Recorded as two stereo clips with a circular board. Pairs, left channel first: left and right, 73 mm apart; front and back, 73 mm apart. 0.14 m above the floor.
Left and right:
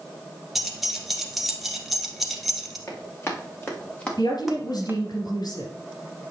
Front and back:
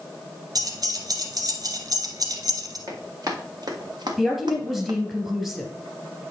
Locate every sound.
0.6 s keys jangling: straight behind, 1.3 m
2.9 s running footsteps: 140° left, 3 m; by 5.0 s 150° right, 1.4 m
4.2 s a woman speaking: 95° left, 2.5 m